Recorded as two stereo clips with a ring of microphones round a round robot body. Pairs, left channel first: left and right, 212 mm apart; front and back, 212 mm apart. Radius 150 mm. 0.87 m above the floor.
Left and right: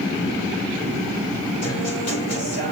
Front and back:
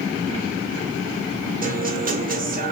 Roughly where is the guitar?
Behind left.